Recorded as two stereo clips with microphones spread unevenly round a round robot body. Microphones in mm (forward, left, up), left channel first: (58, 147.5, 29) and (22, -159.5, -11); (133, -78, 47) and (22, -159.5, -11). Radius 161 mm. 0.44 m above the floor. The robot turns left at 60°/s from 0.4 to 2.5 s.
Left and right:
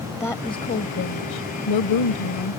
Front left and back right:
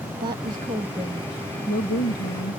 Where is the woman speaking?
170° left; by 2.6 s 45° left.